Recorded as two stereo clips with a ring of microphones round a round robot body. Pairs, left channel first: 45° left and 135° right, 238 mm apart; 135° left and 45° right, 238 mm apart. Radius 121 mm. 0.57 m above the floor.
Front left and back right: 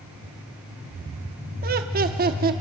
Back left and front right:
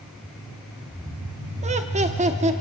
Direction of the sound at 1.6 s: 95° right.